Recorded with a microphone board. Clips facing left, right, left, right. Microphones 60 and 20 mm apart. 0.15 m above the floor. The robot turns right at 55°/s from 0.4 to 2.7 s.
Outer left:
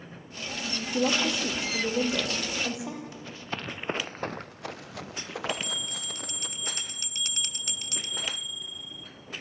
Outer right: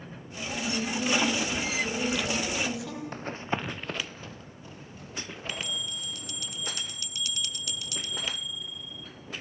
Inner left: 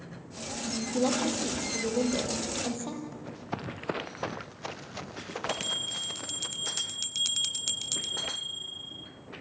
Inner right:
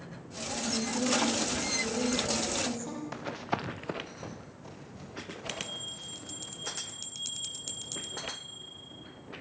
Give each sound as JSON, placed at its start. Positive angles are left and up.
{"t": 0.9, "sound": "a woman speaking", "azimuth_deg": 60, "distance_m": 5.5}
{"t": 3.1, "sound": "running footsteps", "side_deg": -45, "distance_m": 1.1}
{"t": 5.5, "sound": "a bell", "side_deg": 40, "distance_m": 0.5}